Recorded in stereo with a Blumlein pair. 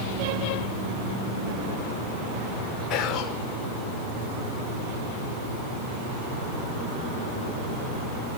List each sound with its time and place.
2.9 s whispering: 35° left, 5.5 m